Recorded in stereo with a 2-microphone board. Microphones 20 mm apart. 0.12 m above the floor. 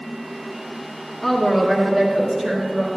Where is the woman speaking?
Centre (ahead or behind), 1.6 m; by 2.9 s 55° right (ahead or behind), 2.5 m.